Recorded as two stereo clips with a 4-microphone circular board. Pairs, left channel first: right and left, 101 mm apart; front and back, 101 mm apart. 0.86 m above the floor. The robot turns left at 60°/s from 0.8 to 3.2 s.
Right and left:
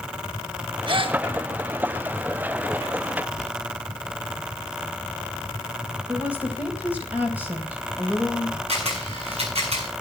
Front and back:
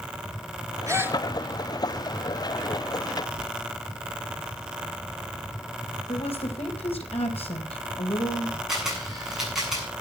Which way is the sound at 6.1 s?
15° left.